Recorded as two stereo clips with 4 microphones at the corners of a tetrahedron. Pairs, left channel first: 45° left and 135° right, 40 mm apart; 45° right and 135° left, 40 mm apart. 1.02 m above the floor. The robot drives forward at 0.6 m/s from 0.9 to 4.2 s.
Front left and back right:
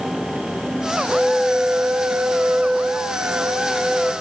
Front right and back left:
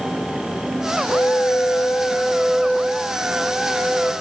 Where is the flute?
55° right, 0.6 m; by 4.1 s 160° right, 1.5 m.